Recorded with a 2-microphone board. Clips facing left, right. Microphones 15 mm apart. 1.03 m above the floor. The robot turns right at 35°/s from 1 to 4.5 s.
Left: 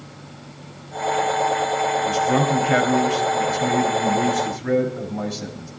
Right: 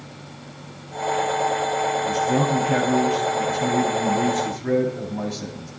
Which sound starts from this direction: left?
A man speaking, at 2.0 s.